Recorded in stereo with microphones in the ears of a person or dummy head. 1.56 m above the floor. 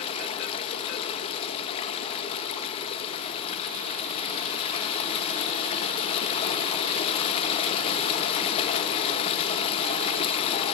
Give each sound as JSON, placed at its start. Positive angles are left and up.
{"t": 0.0, "sound": "running water", "side_deg": 25, "distance_m": 1.6}